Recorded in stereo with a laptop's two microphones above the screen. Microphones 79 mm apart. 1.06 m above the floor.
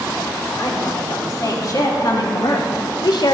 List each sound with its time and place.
0.5 s a woman speaking: 45° left (ahead or behind), 3.5 m; by 3.4 s 60° left (ahead or behind), 0.9 m